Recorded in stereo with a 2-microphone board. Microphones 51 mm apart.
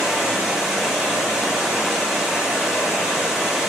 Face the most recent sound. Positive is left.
turn(degrees=-15)  # may be behind; listen again after turning